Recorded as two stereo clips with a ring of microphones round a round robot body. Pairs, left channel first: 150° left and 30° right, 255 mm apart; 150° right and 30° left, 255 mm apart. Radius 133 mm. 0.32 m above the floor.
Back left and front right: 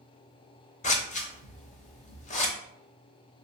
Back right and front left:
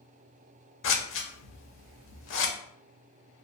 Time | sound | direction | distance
0.8 | scissors | 155° right | 0.7 m